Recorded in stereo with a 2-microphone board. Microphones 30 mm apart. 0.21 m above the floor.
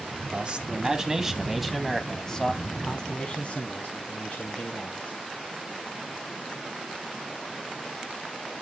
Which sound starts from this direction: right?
A man speaking, at 0.3 s.